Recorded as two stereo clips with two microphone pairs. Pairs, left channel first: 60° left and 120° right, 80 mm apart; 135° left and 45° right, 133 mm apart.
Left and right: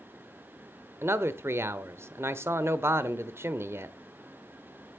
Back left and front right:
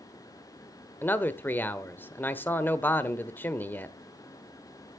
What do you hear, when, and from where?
1.0 s a man speaking: 155° right, 0.9 m